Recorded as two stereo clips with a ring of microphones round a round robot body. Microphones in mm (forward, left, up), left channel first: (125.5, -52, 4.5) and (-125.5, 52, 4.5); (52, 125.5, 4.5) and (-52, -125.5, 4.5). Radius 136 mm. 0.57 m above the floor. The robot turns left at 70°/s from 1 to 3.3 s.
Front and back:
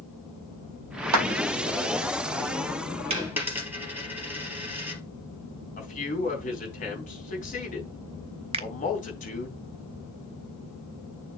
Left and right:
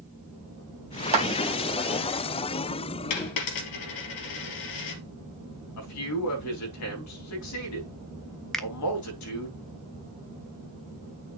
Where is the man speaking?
40° left, 4 m.